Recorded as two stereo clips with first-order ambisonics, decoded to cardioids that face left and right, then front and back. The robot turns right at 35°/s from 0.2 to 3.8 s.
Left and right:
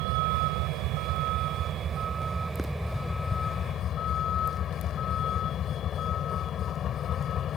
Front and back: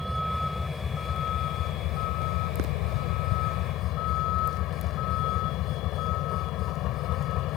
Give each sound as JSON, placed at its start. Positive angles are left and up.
{"t": 0.0, "sound": "a vehicle", "azimuth_deg": -90}